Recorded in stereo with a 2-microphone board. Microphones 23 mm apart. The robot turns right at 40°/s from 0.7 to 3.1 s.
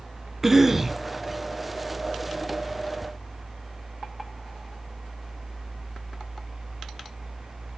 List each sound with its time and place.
0.4 s a cough: 15° right (ahead or behind), 1.1 m; by 1.0 s 10° right (ahead or behind), 1.1 m